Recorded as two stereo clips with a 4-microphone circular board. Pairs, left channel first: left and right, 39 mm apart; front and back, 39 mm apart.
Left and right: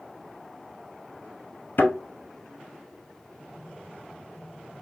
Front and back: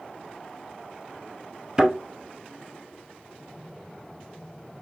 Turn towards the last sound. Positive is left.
turn(degrees=115)